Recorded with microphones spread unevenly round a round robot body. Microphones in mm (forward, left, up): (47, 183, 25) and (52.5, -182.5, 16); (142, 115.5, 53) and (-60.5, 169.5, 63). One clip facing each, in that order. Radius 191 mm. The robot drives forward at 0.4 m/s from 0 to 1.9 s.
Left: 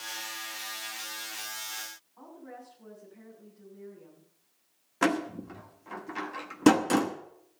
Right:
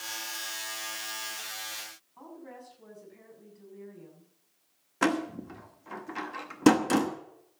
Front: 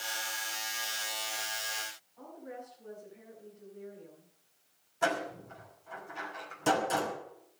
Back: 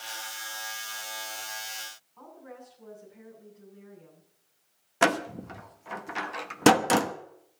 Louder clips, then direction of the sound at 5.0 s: Even, back 6 dB; 175° right.